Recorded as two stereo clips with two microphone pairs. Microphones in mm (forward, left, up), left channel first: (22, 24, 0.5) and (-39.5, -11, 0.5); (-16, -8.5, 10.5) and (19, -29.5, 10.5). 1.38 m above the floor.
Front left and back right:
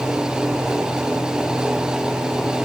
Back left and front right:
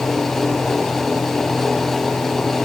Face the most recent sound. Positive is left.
No sound to turn to.